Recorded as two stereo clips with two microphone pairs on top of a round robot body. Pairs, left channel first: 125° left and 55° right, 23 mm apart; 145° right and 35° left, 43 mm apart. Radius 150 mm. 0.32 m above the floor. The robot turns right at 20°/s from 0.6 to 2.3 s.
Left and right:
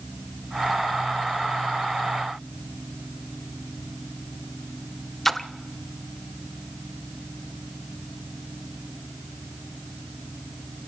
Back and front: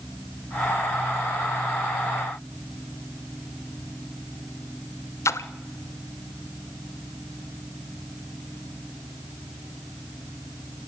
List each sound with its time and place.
5.2 s a splash: 155° right, 0.9 m